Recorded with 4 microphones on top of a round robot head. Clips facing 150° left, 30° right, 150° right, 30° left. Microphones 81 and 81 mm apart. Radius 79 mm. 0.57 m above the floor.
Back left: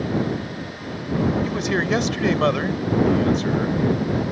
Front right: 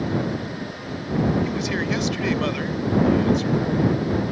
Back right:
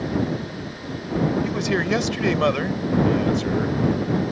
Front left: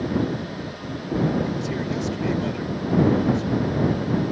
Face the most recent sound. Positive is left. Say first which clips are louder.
# back left 2 dB, back right 4 dB
turn(degrees=-160)